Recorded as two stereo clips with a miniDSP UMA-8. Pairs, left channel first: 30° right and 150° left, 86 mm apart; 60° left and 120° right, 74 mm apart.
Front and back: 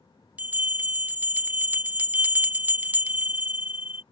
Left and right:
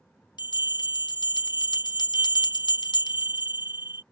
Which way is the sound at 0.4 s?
80° left.